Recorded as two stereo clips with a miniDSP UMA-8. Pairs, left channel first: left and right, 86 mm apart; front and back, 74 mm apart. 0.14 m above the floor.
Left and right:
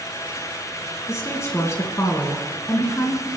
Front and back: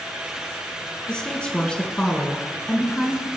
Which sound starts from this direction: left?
A woman speaking, at 1.1 s.